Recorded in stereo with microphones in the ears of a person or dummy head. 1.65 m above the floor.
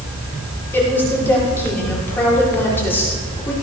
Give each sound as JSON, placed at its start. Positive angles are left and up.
{"t": 0.7, "sound": "a woman speaking", "side_deg": 15, "distance_m": 6.0}